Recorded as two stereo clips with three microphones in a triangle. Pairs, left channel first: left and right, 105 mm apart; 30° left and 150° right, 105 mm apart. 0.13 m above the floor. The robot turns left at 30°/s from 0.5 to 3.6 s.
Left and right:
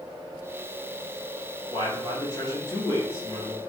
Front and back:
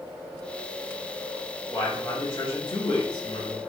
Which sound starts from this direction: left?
A man speaking, at 1.7 s.